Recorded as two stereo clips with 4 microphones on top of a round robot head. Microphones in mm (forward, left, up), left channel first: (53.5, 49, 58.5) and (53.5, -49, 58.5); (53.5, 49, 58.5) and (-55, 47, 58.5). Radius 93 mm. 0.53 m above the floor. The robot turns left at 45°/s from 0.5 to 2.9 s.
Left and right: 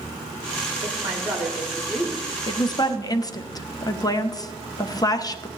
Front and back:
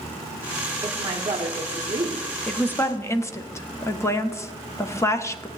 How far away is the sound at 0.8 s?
About 1.3 m.